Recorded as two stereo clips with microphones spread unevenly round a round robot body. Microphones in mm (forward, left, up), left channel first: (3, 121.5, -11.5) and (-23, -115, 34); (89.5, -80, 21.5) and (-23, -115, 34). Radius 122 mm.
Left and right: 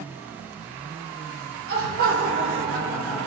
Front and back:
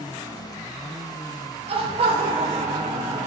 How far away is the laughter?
About 2 m.